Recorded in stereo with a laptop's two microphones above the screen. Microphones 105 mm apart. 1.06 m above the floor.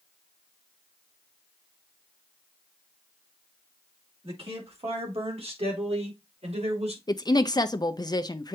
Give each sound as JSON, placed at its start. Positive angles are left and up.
{"t": 4.2, "sound": "a man speaking", "side_deg": -60, "distance_m": 4.5}
{"t": 7.1, "sound": "a woman speaking", "side_deg": 40, "distance_m": 0.6}